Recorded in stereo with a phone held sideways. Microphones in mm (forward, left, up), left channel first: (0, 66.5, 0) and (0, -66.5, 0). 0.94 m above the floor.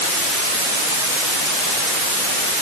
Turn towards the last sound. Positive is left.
No sound to turn to.